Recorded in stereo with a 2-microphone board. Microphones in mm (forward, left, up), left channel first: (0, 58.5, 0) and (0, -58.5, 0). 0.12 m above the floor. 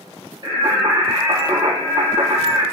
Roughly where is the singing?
Right.